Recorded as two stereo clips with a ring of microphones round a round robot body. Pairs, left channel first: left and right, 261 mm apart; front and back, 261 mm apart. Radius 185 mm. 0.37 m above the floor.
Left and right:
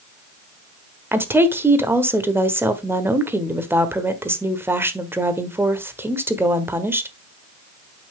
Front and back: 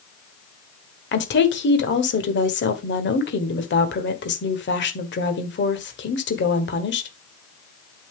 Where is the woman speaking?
10° right, 1.3 m.